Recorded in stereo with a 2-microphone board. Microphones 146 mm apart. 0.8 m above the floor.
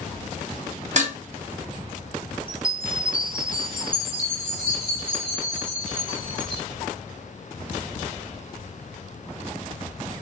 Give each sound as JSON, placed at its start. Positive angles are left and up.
{"t": 1.0, "sound": "dishes clattering", "side_deg": -50, "distance_m": 0.9}
{"t": 2.5, "sound": "a chime", "side_deg": -35, "distance_m": 1.6}